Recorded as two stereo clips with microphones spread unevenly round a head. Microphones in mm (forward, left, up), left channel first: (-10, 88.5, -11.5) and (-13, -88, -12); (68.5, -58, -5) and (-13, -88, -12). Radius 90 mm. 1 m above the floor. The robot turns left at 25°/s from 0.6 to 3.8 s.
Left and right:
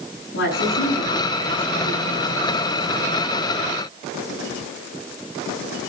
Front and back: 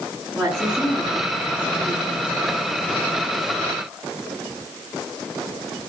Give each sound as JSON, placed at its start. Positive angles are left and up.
{"t": 0.3, "sound": "a woman speaking", "azimuth_deg": 105, "distance_m": 8.5}